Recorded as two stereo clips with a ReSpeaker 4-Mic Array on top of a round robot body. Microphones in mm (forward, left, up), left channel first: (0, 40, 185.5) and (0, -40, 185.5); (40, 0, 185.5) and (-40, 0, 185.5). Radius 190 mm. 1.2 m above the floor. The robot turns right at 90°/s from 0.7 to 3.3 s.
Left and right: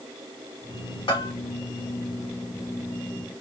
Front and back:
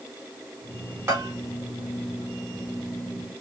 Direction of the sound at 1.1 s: 120° left.